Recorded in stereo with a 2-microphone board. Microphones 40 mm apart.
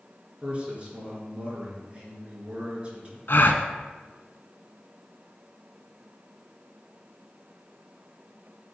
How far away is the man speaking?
About 3.5 m.